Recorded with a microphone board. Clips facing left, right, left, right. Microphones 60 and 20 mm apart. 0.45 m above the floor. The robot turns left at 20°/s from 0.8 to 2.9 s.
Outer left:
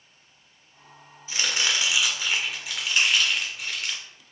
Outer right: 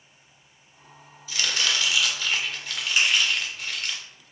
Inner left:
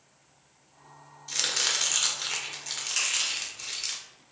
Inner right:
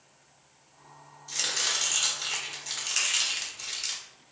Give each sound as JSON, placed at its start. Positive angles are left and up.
{"t": 1.3, "sound": "chopping", "azimuth_deg": 35, "distance_m": 0.6}
{"t": 3.0, "sound": "crushing", "side_deg": -10, "distance_m": 1.6}